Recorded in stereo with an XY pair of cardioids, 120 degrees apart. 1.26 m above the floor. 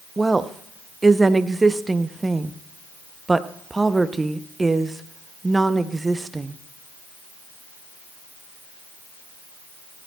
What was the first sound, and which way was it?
A woman speaking, 15° right.